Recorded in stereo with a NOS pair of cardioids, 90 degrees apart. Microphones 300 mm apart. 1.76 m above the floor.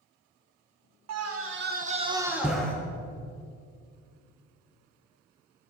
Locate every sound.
1.1 s a scream: 60° right, 1.6 m; by 2.7 s 5° left, 2 m